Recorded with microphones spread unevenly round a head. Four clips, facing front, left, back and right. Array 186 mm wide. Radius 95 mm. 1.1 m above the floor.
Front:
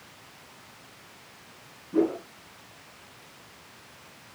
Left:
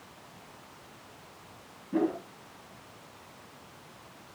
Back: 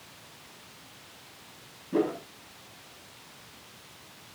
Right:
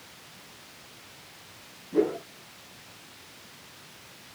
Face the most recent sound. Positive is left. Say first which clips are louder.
# right 3 dB, front 3 dB
turn(degrees=160)